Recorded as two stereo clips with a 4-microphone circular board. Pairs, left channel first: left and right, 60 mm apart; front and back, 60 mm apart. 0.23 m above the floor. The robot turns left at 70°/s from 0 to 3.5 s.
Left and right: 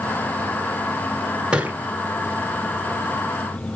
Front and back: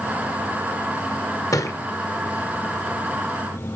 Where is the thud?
15° right, 1.1 m; by 1.8 s 35° right, 1.1 m.